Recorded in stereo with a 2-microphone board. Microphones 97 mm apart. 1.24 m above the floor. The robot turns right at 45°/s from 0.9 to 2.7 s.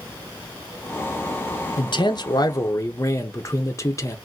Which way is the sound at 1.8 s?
100° left.